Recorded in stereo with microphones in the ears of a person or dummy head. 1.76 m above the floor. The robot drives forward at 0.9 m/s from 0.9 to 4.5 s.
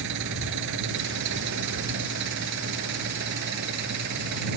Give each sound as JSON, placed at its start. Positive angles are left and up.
{"t": 0.0, "sound": "an engine running", "side_deg": -70}